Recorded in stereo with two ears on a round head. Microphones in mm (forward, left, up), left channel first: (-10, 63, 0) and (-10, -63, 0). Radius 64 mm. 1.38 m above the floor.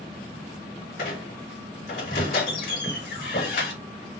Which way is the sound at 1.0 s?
80° left.